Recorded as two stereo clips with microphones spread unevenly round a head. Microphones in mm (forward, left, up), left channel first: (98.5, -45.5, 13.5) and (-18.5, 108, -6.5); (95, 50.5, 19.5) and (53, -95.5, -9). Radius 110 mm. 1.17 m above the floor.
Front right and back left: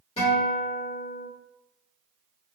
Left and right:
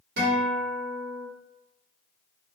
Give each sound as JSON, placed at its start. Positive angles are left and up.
{"t": 0.2, "sound": "a guitar", "azimuth_deg": -120, "distance_m": 1.2}